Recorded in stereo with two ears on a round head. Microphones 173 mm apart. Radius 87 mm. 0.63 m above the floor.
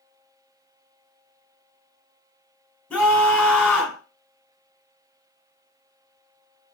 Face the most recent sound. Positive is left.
turn(degrees=10)  # may be behind; listen again after turning